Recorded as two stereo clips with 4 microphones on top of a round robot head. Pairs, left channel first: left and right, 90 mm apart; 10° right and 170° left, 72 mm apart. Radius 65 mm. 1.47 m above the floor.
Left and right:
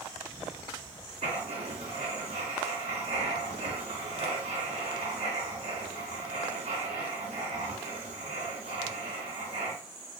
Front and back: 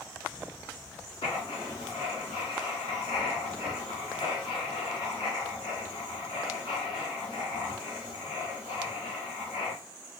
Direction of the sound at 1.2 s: 65° right.